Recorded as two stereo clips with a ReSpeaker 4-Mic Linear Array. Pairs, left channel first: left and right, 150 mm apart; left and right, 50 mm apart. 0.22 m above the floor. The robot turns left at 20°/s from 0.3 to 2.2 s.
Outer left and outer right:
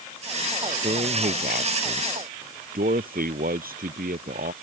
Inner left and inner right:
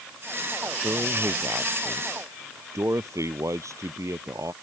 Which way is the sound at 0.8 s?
55° right (ahead or behind).